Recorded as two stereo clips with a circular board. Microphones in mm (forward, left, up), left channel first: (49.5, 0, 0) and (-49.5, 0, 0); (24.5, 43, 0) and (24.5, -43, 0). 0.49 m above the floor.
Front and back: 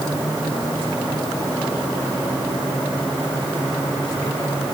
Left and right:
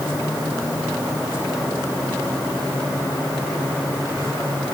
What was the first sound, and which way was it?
Only background noise.